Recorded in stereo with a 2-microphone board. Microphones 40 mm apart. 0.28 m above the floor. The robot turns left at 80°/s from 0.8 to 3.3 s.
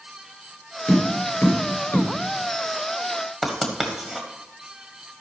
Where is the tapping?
45° left (ahead or behind), 4 m; by 2.1 s 35° left (ahead or behind), 4 m.